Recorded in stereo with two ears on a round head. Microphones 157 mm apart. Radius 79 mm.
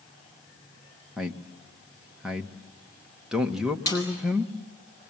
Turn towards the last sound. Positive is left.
turn(degrees=20)  # may be behind; listen again after turning